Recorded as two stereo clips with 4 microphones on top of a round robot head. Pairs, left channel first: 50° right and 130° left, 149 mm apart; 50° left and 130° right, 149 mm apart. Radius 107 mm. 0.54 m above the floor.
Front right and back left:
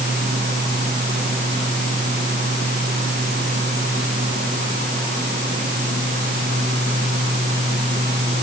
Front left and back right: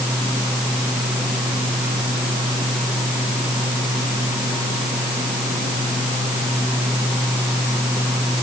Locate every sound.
Only background noise.